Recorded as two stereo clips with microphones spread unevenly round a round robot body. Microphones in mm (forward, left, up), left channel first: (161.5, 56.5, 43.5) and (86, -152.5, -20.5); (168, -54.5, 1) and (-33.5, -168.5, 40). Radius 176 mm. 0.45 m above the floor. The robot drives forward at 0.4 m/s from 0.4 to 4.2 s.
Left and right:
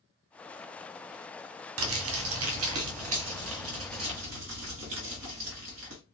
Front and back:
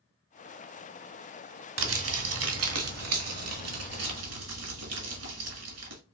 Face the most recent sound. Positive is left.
turn(degrees=-150)